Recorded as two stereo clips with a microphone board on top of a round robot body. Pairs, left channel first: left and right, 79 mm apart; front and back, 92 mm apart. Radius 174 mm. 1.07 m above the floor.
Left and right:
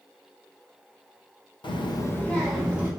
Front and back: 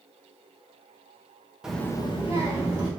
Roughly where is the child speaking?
Left.